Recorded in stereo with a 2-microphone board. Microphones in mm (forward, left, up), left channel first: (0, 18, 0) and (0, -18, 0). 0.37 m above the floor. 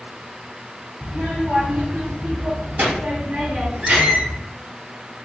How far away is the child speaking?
About 0.9 m.